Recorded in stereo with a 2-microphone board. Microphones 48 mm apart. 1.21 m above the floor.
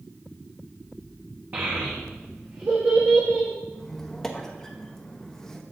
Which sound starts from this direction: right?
A child speaking, at 1.5 s.